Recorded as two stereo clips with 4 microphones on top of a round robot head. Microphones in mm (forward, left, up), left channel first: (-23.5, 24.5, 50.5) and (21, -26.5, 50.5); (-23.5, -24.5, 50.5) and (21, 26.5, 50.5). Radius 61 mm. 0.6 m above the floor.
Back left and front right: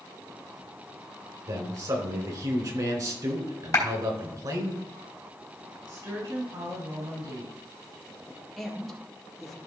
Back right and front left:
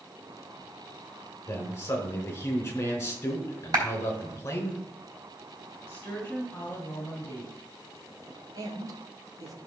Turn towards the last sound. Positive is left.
turn(degrees=45)